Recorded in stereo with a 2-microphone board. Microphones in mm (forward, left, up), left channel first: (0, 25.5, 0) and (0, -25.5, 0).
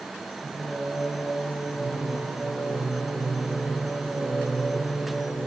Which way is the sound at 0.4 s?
55° right (ahead or behind).